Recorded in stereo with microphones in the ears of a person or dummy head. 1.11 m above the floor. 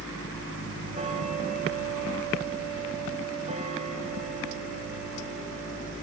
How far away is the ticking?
About 2.5 m.